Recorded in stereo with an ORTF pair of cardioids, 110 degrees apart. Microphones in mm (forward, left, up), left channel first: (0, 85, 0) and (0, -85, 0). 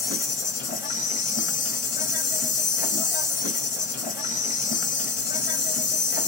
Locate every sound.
0.0 s an insect: 50° left, 1.5 m